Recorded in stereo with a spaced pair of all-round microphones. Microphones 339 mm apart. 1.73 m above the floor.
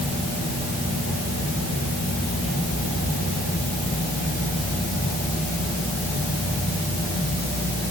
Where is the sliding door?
No sliding door in this recording.